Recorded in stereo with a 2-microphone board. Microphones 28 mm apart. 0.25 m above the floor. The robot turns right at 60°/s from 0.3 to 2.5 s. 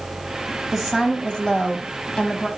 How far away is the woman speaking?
About 1.5 m.